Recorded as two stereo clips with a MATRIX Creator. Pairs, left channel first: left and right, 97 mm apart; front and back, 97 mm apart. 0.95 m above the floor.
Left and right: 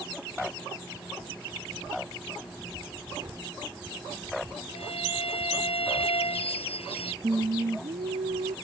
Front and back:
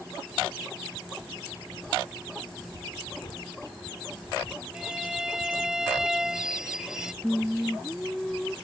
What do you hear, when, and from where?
3.2 s a gunshot: 40° right
4.7 s a violin: 95° left
7.2 s singing: 85° right